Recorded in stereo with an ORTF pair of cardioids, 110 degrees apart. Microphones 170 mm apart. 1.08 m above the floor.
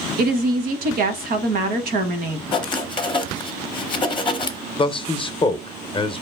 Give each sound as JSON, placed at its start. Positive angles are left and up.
{"t": 0.2, "sound": "a woman speaking", "azimuth_deg": -65, "distance_m": 0.8}
{"t": 2.5, "sound": "writing", "azimuth_deg": 30, "distance_m": 0.7}
{"t": 4.8, "sound": "a man speaking", "azimuth_deg": 35, "distance_m": 0.5}